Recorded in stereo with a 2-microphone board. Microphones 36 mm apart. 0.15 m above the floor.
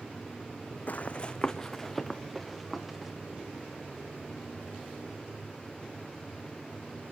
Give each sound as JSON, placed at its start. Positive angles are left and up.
{"t": 0.9, "sound": "running footsteps", "side_deg": 50, "distance_m": 0.6}